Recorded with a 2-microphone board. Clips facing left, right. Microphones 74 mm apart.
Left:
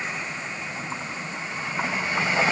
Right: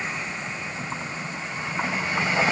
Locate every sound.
Only background noise.